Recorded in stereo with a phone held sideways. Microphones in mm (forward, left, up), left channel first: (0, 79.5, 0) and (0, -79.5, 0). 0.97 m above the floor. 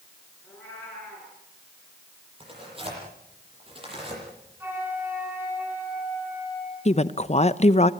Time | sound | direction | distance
0.4 | a cat meowing | 10° left (ahead or behind) | 9.5 m
2.4 | tearing paper | 35° right (ahead or behind) | 10 m
4.6 | a flute | 15° right (ahead or behind) | 7 m
6.8 | a woman speaking | 40° left (ahead or behind) | 0.7 m